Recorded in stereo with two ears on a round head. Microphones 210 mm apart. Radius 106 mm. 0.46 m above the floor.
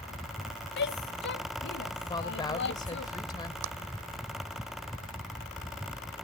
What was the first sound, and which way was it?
A shout, 45° left (ahead or behind).